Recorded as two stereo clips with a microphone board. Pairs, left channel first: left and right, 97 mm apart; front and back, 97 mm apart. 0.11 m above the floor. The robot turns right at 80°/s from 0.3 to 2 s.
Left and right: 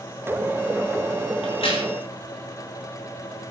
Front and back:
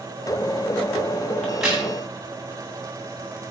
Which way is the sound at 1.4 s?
80° left.